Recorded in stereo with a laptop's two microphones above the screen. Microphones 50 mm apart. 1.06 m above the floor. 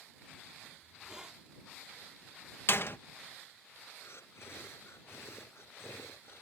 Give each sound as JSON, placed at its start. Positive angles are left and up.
{"t": 0.8, "sound": "a hiss", "side_deg": -15}
{"t": 2.7, "sound": "a door slam", "side_deg": 50}
{"t": 4.0, "sound": "breathing", "side_deg": 60}